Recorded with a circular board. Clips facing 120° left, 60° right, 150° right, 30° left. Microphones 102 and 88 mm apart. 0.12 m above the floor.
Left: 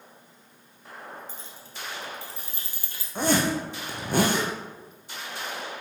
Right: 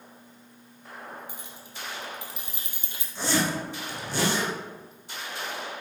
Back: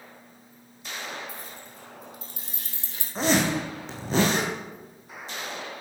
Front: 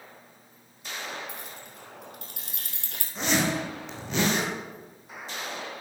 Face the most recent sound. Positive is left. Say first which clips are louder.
# left 3 dB, back 3 dB
turn(degrees=155)